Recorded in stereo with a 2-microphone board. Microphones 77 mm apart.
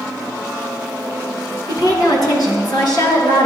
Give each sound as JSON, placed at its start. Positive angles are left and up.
{"t": 1.7, "sound": "a woman speaking", "side_deg": 55, "distance_m": 1.8}